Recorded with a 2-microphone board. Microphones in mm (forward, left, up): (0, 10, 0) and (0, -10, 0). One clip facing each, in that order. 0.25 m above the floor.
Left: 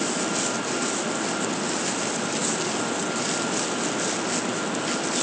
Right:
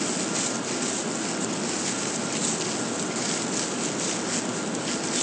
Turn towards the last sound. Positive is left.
No sound to turn to.